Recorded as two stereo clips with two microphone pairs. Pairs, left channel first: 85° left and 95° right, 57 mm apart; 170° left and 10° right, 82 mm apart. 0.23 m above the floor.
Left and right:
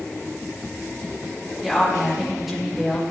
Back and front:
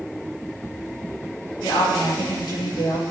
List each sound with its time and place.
1.6 s a woman speaking: 175° left, 4.5 m